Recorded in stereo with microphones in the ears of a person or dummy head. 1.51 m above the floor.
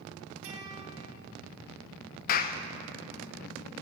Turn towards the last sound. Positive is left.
turn(degrees=45)  # may be behind; listen again after turning